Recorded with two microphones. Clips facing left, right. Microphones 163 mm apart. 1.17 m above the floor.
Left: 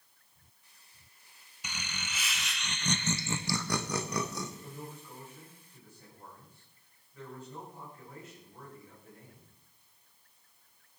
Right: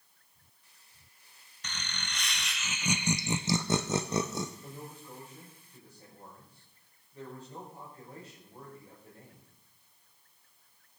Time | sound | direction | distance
1.6 | laughter | 10° left (ahead or behind) | 1.3 m
4.6 | a man speaking | 30° right (ahead or behind) | 6.5 m